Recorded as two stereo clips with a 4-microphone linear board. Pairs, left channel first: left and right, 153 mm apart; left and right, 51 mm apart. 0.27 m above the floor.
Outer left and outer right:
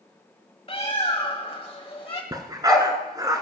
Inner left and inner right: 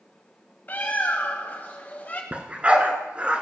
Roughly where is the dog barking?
Right.